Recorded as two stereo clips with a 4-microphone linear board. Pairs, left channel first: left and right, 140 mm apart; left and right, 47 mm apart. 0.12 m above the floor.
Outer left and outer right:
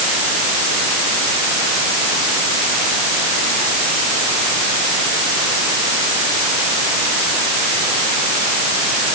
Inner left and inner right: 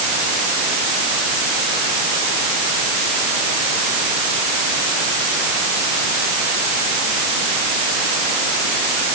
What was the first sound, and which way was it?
Only background noise.